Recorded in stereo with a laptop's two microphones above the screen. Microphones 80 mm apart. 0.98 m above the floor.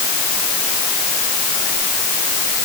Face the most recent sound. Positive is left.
No sound to turn to.